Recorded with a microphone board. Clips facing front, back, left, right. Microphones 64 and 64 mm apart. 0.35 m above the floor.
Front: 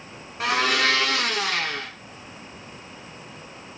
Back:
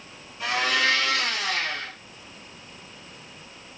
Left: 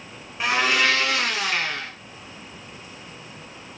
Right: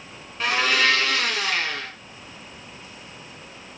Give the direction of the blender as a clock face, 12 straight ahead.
12 o'clock.